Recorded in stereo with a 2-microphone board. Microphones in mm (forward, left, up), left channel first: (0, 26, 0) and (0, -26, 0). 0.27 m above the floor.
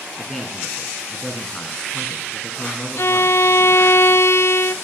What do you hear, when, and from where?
0.2 s a man speaking: 10° left (ahead or behind), 2.5 m
3.0 s a violin: 55° left (ahead or behind), 0.7 m